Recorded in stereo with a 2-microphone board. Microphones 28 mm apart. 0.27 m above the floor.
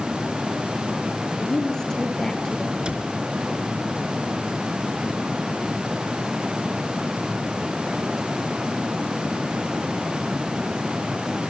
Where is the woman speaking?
20° left (ahead or behind), 4.5 m.